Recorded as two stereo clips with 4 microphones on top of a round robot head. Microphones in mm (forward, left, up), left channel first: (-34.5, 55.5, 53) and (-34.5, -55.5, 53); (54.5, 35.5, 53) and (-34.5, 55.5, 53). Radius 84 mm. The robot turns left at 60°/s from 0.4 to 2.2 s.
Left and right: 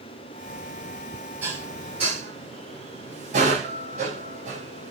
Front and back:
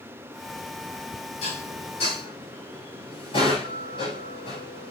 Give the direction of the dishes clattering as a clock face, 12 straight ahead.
12 o'clock.